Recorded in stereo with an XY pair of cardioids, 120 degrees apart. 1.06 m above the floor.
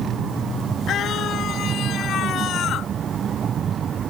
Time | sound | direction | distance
0.9 | a scream | 55° left | ?